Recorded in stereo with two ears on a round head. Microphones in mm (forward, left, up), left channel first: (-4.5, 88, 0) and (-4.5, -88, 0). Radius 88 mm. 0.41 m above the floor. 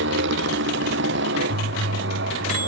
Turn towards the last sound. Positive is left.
turn(degrees=-60)  # may be behind; listen again after turning